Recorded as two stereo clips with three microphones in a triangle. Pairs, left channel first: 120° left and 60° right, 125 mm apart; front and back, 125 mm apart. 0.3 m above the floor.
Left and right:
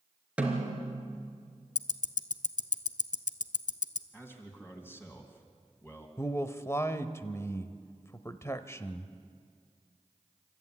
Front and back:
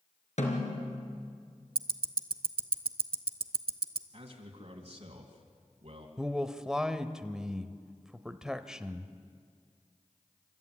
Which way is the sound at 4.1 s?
170° right.